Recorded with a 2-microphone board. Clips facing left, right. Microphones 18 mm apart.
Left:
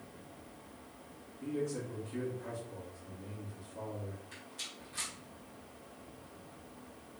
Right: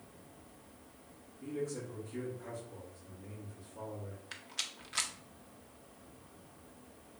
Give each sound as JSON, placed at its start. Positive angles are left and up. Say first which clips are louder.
{"t": 1.4, "sound": "a man speaking", "louder": "left 2 dB", "side_deg": 25, "distance_m": 1.2}
{"t": 4.3, "sound": "a rattle", "louder": "right 4 dB", "side_deg": -45, "distance_m": 0.6}